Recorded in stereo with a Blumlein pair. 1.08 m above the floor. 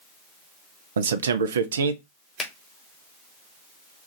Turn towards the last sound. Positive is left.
turn(degrees=20)